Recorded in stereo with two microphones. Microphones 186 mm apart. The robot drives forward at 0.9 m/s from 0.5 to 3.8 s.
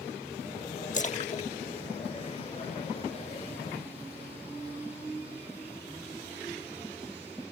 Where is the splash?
40° left (ahead or behind); by 3.1 s 15° left (ahead or behind).